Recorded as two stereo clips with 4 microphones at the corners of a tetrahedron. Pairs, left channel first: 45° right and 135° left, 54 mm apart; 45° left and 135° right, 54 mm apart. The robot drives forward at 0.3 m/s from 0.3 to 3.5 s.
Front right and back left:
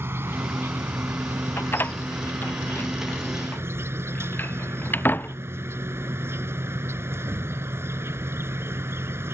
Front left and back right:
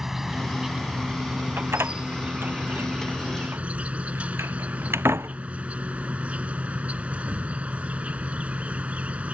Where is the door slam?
95° right; by 5.4 s 100° right.